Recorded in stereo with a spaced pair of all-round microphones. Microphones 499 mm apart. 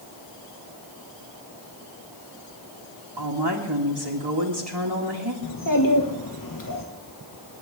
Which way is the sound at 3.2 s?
55° right (ahead or behind).